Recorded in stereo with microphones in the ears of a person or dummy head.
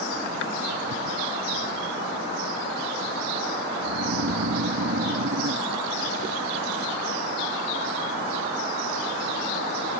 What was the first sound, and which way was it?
Snoring, 55° right (ahead or behind).